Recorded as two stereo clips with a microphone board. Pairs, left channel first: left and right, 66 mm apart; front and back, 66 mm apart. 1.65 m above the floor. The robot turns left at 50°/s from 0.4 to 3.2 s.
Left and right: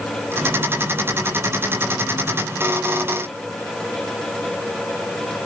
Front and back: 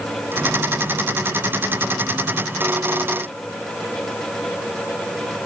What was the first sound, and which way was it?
Only background noise.